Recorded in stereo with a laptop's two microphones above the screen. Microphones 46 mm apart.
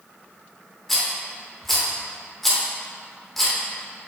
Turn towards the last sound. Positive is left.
turn(degrees=5)  # may be behind; listen again after turning